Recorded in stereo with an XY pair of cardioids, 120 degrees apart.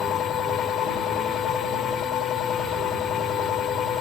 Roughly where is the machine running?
Ahead left.